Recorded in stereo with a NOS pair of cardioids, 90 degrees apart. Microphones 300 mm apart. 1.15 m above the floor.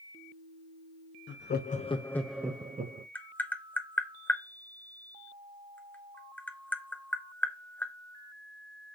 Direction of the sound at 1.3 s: 40° left.